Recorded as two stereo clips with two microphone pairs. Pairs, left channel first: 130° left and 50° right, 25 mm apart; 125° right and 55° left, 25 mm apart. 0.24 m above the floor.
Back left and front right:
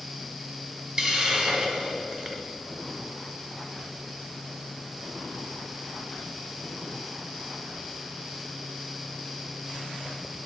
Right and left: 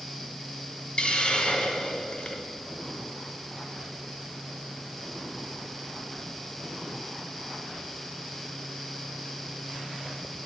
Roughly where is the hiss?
Right.